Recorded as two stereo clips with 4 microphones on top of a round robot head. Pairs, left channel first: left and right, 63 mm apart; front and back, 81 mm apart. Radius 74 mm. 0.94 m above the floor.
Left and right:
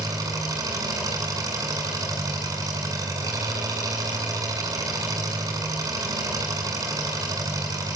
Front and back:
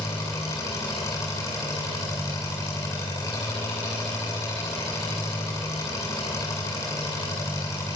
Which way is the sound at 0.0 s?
60° right.